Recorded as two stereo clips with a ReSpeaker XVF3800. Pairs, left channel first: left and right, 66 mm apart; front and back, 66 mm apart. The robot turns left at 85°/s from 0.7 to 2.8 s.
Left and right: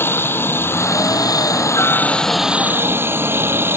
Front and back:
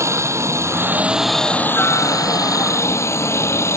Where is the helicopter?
140° left; by 3.8 s 40° right.